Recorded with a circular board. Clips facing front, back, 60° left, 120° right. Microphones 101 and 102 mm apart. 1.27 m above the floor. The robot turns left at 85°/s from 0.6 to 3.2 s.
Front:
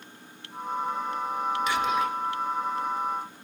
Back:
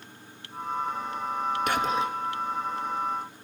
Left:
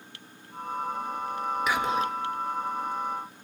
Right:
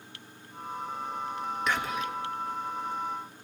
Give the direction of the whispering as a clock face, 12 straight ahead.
7 o'clock.